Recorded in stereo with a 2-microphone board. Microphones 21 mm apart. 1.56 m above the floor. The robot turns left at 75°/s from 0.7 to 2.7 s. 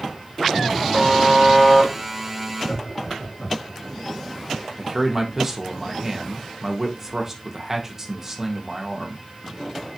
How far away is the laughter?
About 1.6 m.